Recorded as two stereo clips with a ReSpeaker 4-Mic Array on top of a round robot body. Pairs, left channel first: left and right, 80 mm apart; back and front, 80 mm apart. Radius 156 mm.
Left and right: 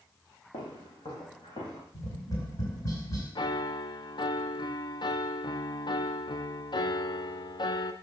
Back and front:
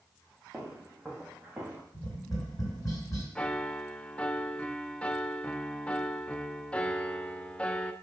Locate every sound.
0.5 s footsteps: 90° left, 3 m; by 1.8 s 85° left, 4 m
1.9 s tapping: 135° left, 4.5 m
3.4 s a piano: 105° left, 0.6 m